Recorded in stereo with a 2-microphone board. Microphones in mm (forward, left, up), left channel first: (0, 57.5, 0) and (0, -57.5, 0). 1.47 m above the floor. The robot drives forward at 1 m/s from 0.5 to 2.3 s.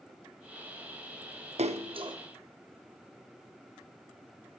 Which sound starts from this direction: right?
A splash, at 1.6 s.